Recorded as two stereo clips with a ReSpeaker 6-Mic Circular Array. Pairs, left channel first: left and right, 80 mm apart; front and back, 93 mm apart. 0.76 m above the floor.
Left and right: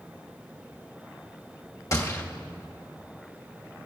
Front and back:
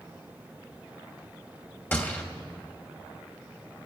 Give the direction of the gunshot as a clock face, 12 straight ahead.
10 o'clock.